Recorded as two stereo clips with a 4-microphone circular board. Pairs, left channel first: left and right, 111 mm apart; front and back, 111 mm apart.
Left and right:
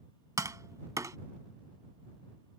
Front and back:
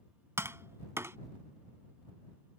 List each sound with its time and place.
0.4 s tapping: 130° right